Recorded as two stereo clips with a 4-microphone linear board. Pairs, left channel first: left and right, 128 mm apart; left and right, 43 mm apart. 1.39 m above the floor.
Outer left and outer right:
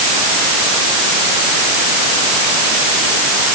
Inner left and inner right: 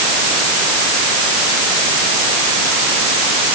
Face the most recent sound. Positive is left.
No sound to turn to.